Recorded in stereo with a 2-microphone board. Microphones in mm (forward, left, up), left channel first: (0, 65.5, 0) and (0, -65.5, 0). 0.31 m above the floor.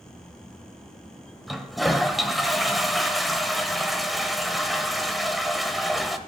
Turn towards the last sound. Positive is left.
turn(degrees=0)  # may be behind; listen again after turning